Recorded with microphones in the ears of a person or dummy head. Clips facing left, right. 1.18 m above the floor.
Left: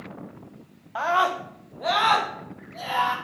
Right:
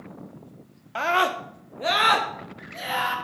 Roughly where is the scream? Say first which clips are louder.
Even; right.